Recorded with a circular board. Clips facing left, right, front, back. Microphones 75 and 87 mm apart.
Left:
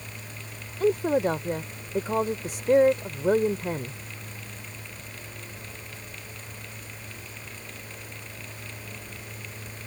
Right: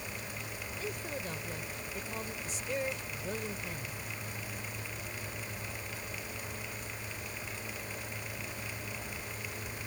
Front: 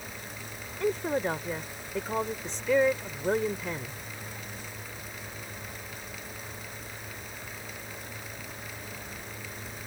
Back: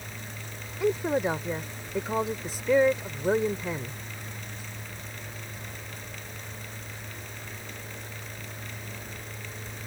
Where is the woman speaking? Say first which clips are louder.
Left 19 dB, back 3 dB; 100° left.